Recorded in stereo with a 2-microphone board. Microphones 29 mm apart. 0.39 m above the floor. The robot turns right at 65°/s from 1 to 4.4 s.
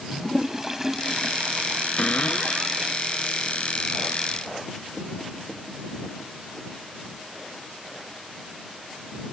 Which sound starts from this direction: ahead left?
A cupboard door, at 2.0 s.